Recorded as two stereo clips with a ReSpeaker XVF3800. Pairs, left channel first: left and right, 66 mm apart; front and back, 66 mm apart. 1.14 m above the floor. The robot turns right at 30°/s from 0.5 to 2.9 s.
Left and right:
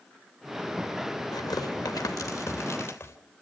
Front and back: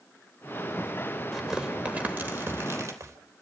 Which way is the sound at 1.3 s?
95° left.